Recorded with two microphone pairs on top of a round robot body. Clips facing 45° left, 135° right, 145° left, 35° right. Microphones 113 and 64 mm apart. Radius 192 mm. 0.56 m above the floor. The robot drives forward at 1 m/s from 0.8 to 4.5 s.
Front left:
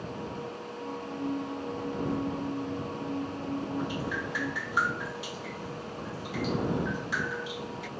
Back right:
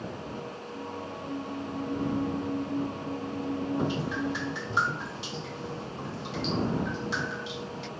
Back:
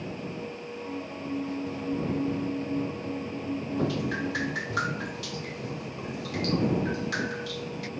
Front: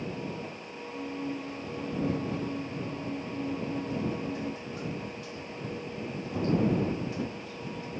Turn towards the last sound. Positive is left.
turn(degrees=160)